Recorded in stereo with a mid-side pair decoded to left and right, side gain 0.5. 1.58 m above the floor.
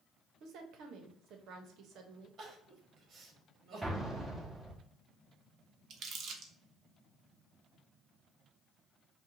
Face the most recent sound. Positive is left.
turn(degrees=-60)